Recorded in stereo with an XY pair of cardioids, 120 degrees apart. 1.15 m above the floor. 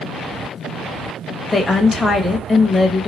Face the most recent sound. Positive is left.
turn(degrees=15)